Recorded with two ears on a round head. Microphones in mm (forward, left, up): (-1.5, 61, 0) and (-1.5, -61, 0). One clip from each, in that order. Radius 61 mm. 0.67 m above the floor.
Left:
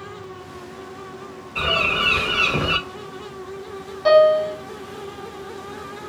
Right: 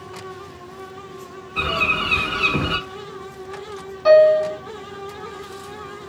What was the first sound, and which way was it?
A bird, 50° left (ahead or behind).